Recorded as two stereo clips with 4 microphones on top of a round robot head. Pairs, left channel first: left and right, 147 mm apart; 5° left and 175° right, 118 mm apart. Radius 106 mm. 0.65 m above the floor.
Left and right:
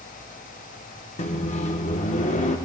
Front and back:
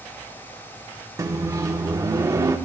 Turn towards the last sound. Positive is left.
turn(degrees=125)